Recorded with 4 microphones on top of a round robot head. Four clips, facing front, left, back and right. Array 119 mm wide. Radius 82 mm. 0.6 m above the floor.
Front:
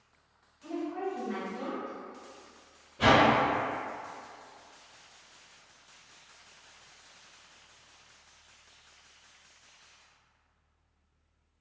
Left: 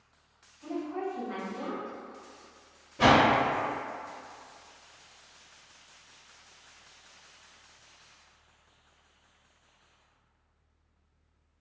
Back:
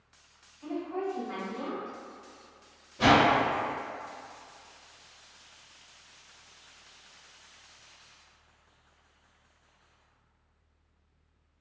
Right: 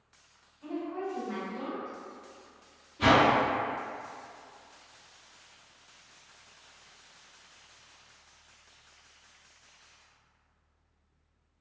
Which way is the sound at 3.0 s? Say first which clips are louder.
Left 1 dB, back 1 dB; 95° left.